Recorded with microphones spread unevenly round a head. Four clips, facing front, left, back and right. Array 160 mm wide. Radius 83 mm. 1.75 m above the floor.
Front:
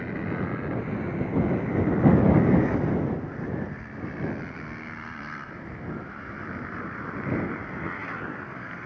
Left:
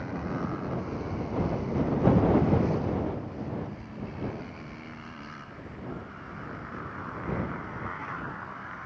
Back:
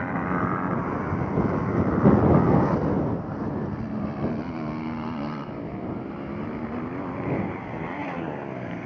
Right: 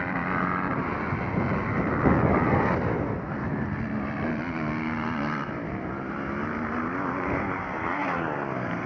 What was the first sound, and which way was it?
A motorcycle, 150° right.